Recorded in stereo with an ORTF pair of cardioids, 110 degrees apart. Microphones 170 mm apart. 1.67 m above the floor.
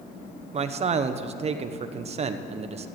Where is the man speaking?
35° right, 1.1 m.